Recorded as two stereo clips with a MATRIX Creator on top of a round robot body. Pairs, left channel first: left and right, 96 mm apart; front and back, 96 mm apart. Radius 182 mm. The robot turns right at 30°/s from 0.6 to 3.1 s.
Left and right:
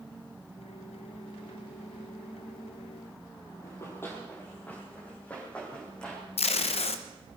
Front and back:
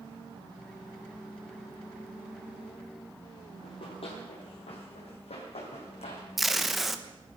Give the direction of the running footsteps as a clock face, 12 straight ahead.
11 o'clock.